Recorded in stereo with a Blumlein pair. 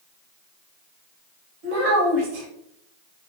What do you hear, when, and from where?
1.6 s a child speaking: 45° right, 1.4 m